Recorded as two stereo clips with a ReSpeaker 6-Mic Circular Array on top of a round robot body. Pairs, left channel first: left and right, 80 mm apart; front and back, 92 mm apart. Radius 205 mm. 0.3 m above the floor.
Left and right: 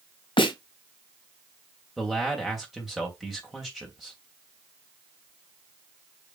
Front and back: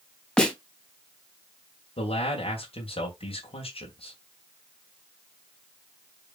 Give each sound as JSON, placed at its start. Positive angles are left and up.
{"t": 0.4, "sound": "a snare drum", "azimuth_deg": 85, "distance_m": 3.5}
{"t": 2.0, "sound": "a man speaking", "azimuth_deg": -5, "distance_m": 3.0}